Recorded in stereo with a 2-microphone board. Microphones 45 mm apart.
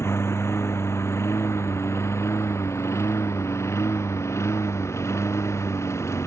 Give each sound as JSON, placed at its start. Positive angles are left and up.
{"t": 0.0, "sound": "a lawn mower", "side_deg": 65}